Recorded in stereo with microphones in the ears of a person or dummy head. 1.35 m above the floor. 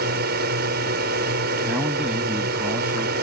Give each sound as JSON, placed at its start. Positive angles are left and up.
{"t": 0.0, "sound": "a drone", "side_deg": -50}
{"t": 1.6, "sound": "a man speaking", "side_deg": -10}